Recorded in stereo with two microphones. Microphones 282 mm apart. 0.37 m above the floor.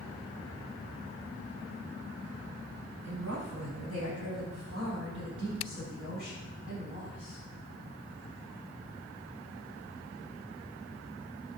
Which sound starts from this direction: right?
A woman speaking, at 3.0 s.